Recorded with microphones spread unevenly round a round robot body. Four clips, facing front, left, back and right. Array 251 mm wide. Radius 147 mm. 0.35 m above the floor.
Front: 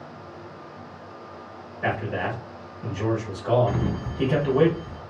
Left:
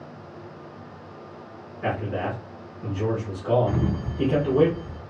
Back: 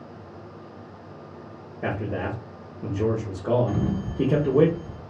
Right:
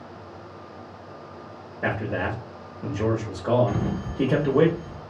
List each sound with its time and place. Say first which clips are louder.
1.8 s a man speaking: even, front 2 dB; 155° right, 1.0 m
3.7 s a sliding door: left 1 dB, even; 30° left, 2.5 m